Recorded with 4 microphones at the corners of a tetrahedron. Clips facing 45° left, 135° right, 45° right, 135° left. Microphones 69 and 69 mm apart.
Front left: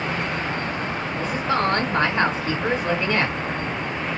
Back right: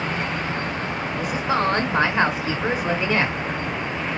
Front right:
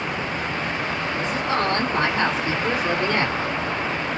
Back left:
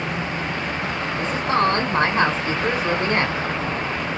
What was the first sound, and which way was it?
A woman speaking, 150° left.